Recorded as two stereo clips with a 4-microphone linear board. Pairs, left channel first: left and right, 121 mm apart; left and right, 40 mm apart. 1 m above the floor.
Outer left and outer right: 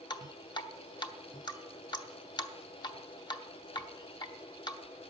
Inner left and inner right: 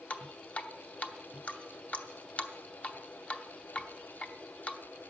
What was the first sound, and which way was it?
Dripping, 35° left (ahead or behind).